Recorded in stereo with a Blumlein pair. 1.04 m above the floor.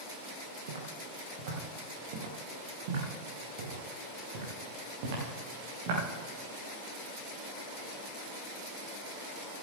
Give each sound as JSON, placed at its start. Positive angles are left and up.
{"t": 0.7, "sound": "footsteps", "azimuth_deg": -55, "distance_m": 3.5}